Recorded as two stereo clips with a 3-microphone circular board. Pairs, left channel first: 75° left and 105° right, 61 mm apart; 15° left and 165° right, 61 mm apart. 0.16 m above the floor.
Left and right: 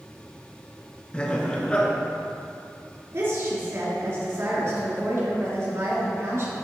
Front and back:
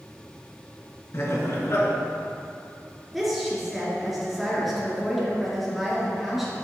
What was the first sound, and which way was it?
Laughter, 10° left.